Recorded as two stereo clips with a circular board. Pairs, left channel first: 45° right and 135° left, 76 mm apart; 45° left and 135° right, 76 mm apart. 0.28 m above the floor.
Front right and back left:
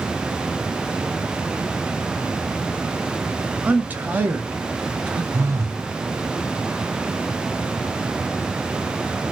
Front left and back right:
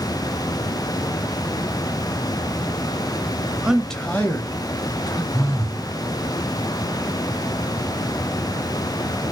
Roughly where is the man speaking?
Behind.